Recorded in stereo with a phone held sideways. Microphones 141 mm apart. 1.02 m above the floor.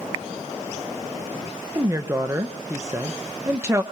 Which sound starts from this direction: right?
A woman speaking, at 1.8 s.